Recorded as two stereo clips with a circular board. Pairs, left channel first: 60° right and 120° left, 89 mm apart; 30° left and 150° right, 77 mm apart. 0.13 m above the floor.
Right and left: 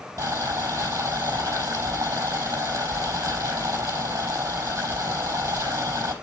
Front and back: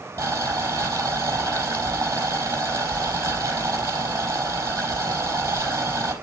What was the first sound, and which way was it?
Boiling, 170° left.